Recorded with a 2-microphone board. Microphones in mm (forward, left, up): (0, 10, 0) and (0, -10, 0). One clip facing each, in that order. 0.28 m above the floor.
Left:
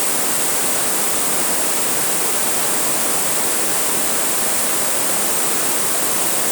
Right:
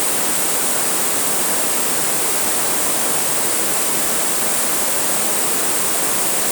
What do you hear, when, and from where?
Only background noise.